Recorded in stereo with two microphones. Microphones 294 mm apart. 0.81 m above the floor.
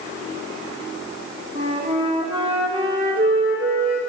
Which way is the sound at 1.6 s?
20° right (ahead or behind).